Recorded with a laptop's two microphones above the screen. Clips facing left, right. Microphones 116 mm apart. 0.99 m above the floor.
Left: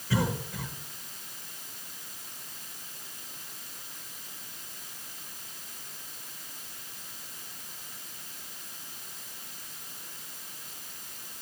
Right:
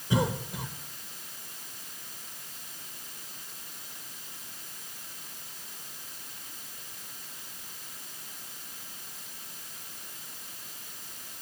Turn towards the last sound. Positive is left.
turn(degrees=-20)  # may be behind; listen again after turning